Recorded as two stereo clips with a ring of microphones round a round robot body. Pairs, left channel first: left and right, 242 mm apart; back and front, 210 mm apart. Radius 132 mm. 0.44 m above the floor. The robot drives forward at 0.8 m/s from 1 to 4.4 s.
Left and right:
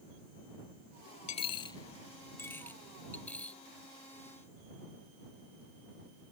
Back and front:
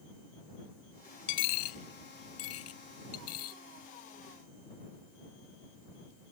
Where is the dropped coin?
150° left; by 3.6 s 175° left.